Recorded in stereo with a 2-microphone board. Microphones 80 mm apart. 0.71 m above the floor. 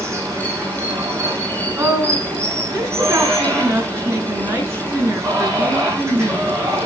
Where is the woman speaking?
30° right (ahead or behind), 7.5 m.